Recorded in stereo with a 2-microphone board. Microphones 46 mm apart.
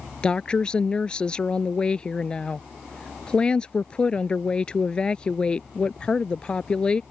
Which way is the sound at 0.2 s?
20° left (ahead or behind).